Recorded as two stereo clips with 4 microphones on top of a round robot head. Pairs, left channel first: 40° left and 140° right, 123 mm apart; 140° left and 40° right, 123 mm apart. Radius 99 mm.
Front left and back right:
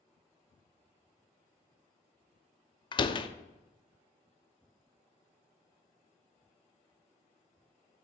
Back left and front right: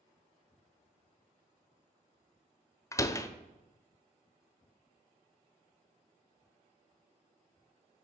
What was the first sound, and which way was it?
A door slam, 80° left.